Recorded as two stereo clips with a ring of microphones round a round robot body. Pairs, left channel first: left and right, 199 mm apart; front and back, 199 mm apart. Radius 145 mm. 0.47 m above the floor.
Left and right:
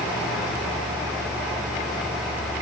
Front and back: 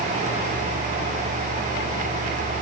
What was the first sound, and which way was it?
Only background noise.